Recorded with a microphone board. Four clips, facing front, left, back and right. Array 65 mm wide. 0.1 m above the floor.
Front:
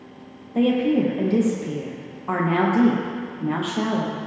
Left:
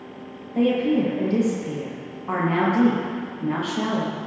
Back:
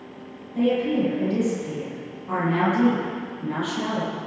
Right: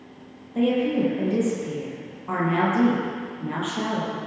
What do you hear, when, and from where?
0.6 s a woman speaking: 15° left, 3.5 m